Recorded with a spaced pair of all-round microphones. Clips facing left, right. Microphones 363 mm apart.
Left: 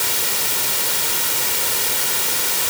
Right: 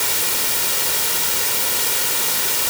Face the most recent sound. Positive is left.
No sound to turn to.